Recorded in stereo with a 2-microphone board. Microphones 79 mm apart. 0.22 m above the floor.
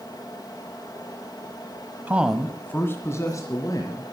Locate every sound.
2.1 s a man speaking: 20° right (ahead or behind), 1.0 m; by 4.0 s 50° left (ahead or behind), 2.5 m